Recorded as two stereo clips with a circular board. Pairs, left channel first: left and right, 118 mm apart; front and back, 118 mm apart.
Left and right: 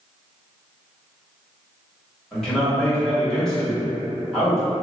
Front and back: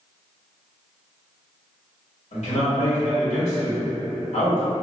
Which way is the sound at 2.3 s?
5° left.